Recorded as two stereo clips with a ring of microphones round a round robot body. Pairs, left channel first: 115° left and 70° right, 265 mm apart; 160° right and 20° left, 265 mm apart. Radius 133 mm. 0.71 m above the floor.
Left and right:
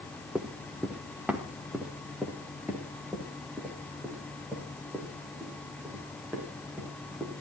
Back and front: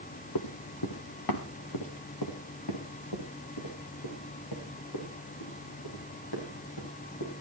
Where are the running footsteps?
155° right, 1.8 m; by 7.3 s 150° right, 10.5 m.